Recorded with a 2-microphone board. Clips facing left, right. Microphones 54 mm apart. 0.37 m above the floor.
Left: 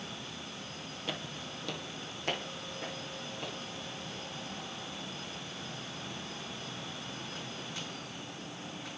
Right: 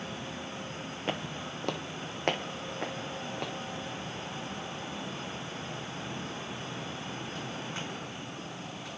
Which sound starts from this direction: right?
Footsteps, at 1.1 s.